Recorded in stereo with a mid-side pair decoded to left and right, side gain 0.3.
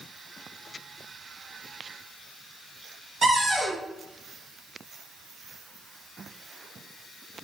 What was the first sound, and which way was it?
A cupboard door, 55° right.